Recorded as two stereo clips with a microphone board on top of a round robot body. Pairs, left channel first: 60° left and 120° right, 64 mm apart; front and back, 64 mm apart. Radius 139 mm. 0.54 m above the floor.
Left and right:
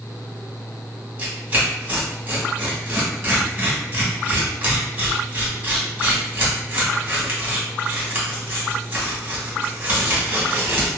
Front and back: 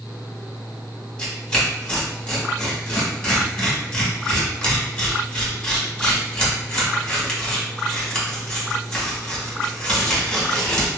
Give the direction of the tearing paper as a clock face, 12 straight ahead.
3 o'clock.